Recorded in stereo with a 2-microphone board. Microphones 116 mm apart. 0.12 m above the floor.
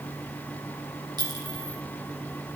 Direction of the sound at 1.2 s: 35° right (ahead or behind).